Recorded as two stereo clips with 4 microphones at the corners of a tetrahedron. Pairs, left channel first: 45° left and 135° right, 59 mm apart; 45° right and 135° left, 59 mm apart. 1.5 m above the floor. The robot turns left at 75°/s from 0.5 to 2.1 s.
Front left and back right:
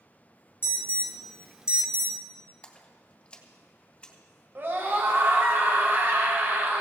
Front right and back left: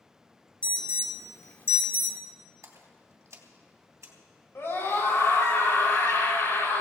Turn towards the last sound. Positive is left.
turn(degrees=-90)